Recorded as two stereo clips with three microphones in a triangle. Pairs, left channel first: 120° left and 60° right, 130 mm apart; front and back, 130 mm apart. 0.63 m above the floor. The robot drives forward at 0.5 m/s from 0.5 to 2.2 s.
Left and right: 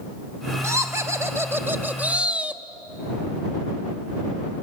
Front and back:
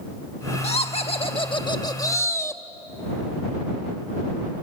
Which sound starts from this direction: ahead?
Laughter, at 0.6 s.